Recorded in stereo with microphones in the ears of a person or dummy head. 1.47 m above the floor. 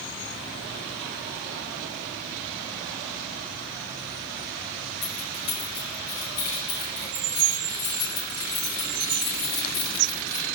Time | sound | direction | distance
5.0 | keys jangling | 55° left (ahead or behind) | 3 m